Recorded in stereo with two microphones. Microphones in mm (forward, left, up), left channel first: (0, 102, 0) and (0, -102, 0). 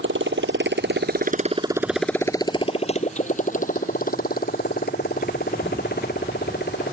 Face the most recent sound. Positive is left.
turn(degrees=55)  # may be behind; listen again after turning